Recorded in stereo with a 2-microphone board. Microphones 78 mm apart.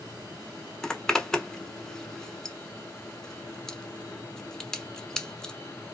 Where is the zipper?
5° left (ahead or behind), 0.8 m.